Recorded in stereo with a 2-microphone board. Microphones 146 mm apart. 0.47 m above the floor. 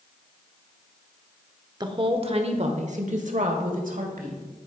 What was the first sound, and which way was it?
A woman speaking, 30° right (ahead or behind).